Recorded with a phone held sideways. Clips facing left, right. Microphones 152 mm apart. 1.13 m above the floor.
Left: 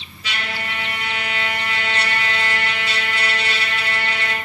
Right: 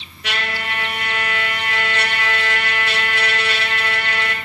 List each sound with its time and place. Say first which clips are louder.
0.2 s a trumpet: right 3 dB; 70° right (ahead or behind), 2.5 m